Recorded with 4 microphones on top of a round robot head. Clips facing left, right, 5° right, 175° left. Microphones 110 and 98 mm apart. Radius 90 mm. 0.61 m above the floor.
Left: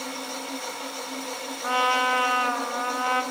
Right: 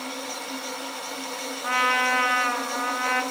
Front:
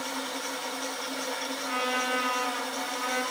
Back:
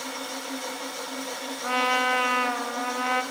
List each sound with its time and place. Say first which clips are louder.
1.6 s a trumpet: left 1 dB, back 7 dB; 160° left, 1.1 m